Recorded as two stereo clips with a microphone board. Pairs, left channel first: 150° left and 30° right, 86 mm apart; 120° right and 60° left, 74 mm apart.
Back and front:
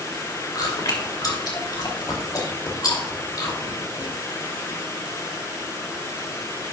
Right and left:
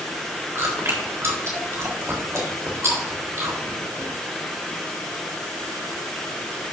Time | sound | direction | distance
0.6 | chewing | 110° left | 3.5 m